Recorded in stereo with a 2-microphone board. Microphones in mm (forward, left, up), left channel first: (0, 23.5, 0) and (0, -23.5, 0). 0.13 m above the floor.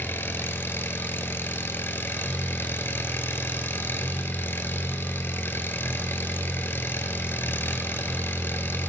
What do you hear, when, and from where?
0.0 s an engine running: 55° left (ahead or behind), 0.7 m